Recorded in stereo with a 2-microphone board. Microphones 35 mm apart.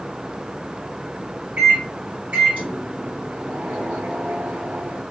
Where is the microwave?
60° right (ahead or behind), 2.5 m.